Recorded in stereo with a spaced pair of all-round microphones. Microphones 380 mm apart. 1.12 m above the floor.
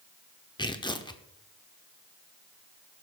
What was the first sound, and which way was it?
Tearing paper, 10° left (ahead or behind).